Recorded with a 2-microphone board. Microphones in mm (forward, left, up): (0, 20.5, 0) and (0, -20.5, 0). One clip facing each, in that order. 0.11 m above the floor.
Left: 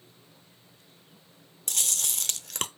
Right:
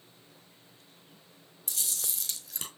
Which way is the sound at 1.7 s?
65° left (ahead or behind).